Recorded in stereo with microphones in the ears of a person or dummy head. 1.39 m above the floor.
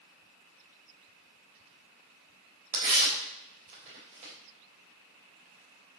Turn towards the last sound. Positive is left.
turn(degrees=-30)  # may be behind; listen again after turning